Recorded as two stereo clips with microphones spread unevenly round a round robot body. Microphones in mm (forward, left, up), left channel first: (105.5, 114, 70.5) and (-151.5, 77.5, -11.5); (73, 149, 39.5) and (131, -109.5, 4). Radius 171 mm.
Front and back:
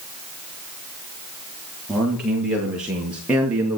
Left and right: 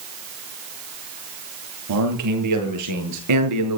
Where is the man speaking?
85° right, 8 m; by 3.8 s 90° right, 5.5 m.